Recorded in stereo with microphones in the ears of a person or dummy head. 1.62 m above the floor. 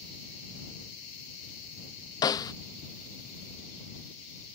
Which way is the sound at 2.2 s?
20° left (ahead or behind).